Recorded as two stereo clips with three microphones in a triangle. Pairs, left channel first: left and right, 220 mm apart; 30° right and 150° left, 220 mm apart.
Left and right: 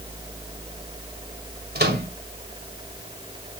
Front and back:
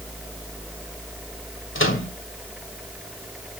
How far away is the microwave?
About 1.7 m.